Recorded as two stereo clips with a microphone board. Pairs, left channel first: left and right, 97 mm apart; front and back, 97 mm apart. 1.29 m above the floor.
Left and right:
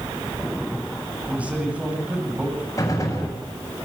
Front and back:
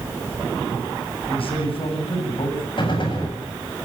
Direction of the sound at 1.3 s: 15° right.